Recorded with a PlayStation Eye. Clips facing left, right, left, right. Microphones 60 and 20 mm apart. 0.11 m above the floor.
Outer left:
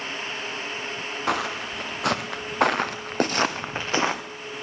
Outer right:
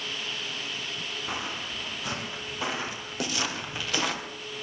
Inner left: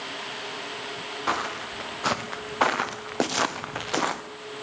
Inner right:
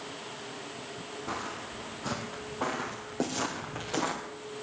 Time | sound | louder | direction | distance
1.3 | footsteps | outer left 10 dB, inner left 9 dB | 80° left | 2.5 m